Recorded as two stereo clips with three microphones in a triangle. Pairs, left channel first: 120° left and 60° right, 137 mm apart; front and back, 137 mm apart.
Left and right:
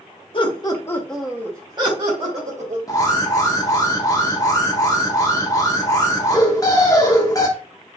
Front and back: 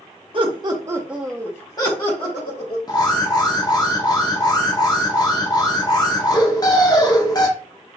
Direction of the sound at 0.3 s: 150° left.